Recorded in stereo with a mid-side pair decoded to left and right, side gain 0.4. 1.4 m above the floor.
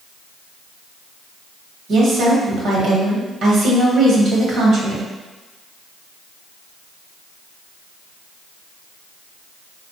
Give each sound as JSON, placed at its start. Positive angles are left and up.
{"t": 1.9, "sound": "a woman speaking", "azimuth_deg": -70, "distance_m": 1.1}